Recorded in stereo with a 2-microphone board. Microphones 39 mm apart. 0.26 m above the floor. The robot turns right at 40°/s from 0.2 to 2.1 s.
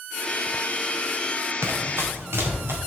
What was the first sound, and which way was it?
Running footsteps, 85° right.